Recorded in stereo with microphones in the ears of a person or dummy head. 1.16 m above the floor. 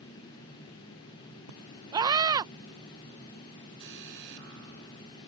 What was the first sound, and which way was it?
A scream, 20° right (ahead or behind).